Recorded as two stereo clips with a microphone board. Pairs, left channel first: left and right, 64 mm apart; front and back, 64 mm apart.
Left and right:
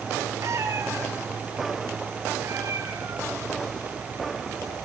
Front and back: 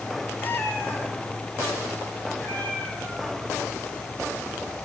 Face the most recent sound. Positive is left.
turn(degrees=-70)